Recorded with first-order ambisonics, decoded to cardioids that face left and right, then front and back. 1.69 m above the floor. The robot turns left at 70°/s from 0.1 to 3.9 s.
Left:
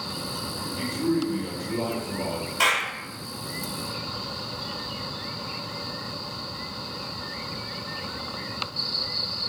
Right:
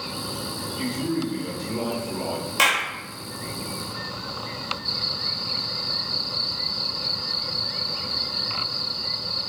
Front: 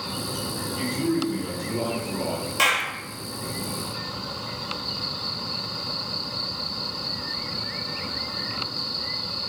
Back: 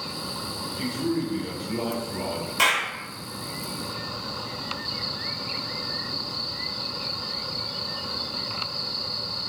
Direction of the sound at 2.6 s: 85° right.